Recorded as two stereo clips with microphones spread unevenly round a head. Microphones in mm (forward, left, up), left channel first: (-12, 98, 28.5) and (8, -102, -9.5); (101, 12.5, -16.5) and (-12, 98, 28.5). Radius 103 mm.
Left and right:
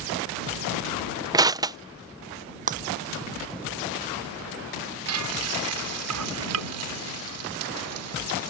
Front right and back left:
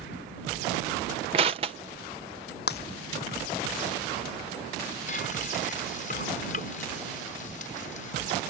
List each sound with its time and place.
1.3 s crushing: 160° right
2.7 s breaking glass: 25° right
5.1 s frying: 95° right